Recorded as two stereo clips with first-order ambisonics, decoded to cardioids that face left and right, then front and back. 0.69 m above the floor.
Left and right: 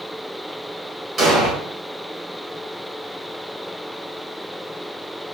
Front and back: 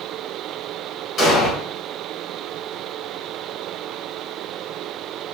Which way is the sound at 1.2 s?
45° right.